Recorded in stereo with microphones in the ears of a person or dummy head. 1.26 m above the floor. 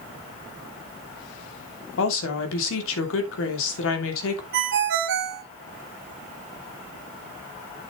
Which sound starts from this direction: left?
A woman speaking, at 2.0 s.